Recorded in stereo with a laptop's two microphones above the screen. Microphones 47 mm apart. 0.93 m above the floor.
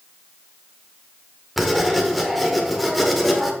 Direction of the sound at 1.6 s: Centre (ahead or behind).